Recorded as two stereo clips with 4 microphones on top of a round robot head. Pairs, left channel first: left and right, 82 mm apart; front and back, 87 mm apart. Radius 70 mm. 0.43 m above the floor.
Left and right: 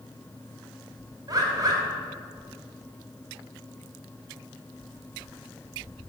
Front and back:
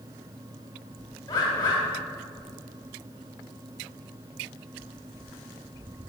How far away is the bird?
About 3.5 m.